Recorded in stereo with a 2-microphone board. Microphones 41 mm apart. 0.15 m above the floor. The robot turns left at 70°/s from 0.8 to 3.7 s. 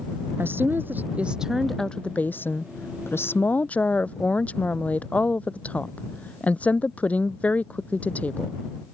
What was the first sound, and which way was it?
A woman speaking, 125° right.